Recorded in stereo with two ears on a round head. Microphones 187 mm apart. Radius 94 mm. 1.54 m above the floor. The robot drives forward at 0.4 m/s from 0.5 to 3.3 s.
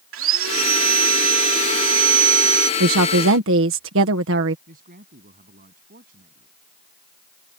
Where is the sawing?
70° right (ahead or behind); by 2.7 s 60° right (ahead or behind).